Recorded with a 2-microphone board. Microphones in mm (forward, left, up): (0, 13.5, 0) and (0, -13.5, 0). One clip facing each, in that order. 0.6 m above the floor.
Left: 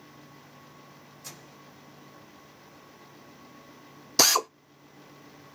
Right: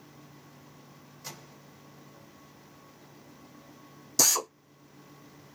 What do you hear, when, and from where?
1.2 s a microwave: 15° right (ahead or behind), 1.8 m
4.2 s a drill: 45° left (ahead or behind), 0.5 m